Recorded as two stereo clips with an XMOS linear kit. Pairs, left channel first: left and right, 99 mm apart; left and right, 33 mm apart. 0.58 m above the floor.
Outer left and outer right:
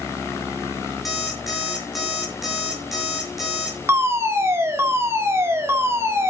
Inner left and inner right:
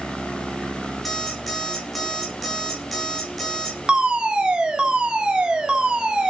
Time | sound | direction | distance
1.1 | an alarm clock | centre (ahead or behind) | 6 m
3.9 | a fire alarm | 25° right (ahead or behind) | 2.5 m